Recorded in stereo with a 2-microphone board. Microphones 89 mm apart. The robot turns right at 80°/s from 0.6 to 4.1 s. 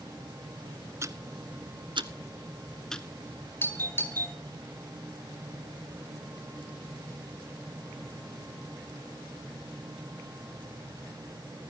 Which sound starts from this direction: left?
A doorbell, at 3.6 s.